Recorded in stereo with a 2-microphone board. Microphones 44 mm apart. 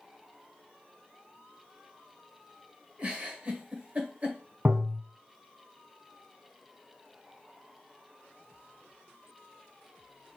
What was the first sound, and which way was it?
A giggle, 35° right (ahead or behind).